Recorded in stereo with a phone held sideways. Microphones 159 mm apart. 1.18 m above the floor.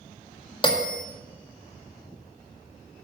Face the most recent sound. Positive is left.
turn(degrees=35)  # may be behind; listen again after turning